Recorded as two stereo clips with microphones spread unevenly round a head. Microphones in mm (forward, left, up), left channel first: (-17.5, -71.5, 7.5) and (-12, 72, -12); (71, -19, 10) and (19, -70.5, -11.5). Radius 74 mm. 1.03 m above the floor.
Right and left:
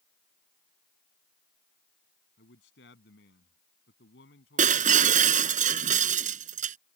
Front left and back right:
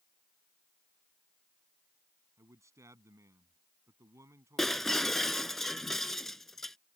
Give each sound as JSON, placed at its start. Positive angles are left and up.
{"t": 2.4, "sound": "a man speaking", "azimuth_deg": -85}
{"t": 4.6, "sound": "breaking glass", "azimuth_deg": 125}